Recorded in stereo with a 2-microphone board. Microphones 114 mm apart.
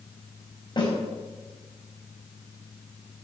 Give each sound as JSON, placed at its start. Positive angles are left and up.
{"t": 0.8, "sound": "a snare drum", "side_deg": 45, "distance_m": 4.5}